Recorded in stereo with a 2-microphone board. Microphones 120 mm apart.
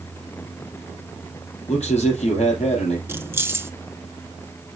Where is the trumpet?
I don't hear a trumpet.